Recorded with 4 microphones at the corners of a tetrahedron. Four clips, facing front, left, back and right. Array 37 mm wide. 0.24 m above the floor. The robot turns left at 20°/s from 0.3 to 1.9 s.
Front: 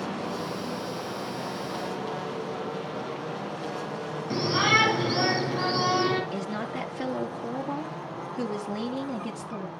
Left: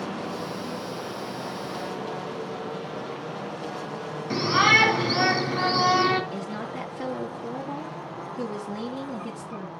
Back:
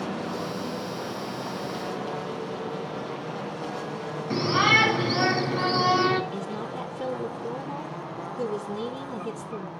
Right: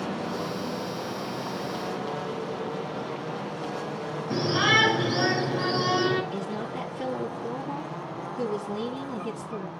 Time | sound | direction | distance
4.3 | a shout | 110° left | 4.5 m
6.3 | a woman speaking | 20° left | 3.5 m